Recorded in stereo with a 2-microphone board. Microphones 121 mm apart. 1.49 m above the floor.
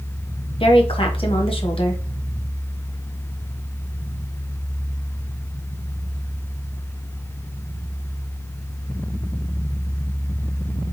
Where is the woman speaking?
50° left (ahead or behind), 1.3 m.